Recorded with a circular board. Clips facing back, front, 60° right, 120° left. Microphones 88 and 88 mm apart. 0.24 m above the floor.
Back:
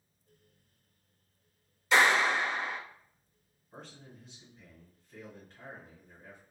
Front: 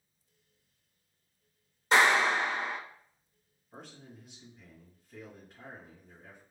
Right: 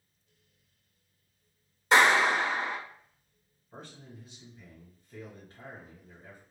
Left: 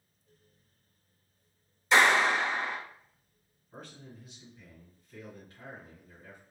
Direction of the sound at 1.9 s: 40° right.